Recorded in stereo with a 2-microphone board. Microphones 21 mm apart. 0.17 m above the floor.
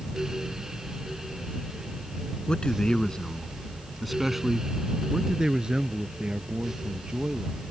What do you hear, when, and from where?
2.5 s a man speaking: 50° left (ahead or behind); by 7.6 s 55° right (ahead or behind)